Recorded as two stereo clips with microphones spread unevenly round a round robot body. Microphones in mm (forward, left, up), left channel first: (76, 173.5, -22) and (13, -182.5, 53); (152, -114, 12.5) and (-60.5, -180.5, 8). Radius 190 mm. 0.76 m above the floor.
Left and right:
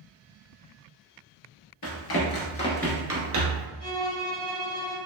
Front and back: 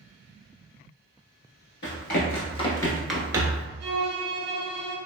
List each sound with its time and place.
1.8 s running footsteps: 30° left, 1.0 m; by 3.7 s 105° right, 0.9 m
3.8 s a violin: 160° left, 0.7 m